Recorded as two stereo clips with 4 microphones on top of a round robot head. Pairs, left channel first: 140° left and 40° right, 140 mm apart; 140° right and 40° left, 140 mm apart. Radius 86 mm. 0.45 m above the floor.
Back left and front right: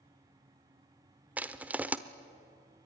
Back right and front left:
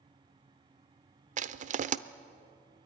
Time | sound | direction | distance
1.4 | crushing | 35° left | 0.8 m